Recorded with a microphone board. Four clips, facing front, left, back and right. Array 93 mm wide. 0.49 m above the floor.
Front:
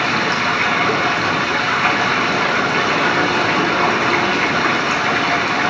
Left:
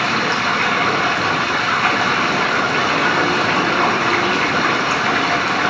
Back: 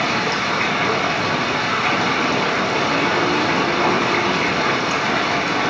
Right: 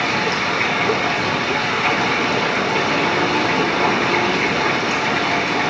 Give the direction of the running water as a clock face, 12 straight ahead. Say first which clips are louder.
Left 2 dB, front 2 dB; 10 o'clock.